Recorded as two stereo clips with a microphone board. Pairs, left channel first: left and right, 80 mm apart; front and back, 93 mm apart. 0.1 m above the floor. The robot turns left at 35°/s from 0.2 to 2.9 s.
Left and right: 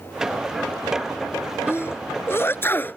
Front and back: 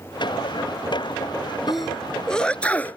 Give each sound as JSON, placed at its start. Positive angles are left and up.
{"t": 1.7, "sound": "a sneeze", "azimuth_deg": 95}